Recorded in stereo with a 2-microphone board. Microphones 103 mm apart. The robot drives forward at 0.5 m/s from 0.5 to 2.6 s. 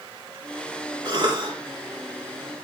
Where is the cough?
50° right (ahead or behind), 4.5 m.